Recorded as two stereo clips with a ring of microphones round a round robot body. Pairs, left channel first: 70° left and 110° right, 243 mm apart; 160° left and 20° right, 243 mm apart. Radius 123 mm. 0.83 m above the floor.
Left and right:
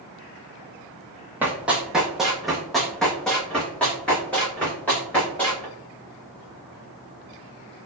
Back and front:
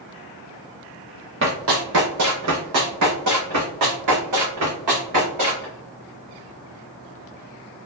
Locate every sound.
1.4 s running footsteps: 30° right, 1.2 m; by 5.7 s 15° right, 3.5 m